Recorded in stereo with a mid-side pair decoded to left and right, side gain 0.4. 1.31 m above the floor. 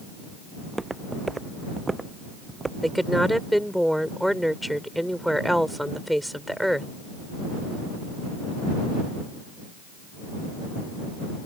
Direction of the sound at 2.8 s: Straight ahead.